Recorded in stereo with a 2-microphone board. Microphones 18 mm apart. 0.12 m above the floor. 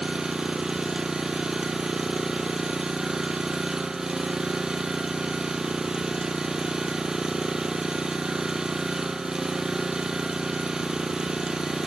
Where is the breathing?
No breathing in this recording.